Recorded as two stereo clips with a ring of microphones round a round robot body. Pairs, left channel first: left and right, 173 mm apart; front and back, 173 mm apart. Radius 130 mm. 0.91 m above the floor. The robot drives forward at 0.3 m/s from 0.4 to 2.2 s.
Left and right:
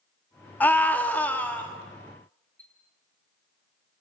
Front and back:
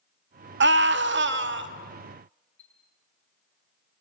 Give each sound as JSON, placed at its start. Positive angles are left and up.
{"t": 0.6, "sound": "a scream", "azimuth_deg": 170, "distance_m": 1.8}
{"t": 2.6, "sound": "a chime", "azimuth_deg": 10, "distance_m": 9.5}